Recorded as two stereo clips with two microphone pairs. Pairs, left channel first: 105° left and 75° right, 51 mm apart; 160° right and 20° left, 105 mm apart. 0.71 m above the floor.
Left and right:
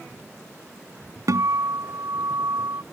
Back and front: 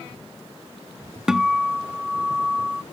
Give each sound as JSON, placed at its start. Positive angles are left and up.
{"t": 1.3, "sound": "a guitar", "azimuth_deg": -65}